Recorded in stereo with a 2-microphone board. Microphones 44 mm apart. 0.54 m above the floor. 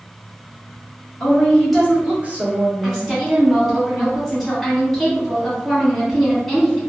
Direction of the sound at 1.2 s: 25° left (ahead or behind).